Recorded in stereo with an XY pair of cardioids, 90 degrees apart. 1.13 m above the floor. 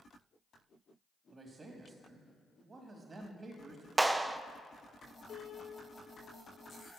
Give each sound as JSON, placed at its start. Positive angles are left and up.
{"t": 1.3, "sound": "a man speaking", "azimuth_deg": -40, "distance_m": 1.6}
{"t": 4.0, "sound": "a clap", "azimuth_deg": -20, "distance_m": 0.5}
{"t": 5.3, "sound": "a piano", "azimuth_deg": 60, "distance_m": 4.0}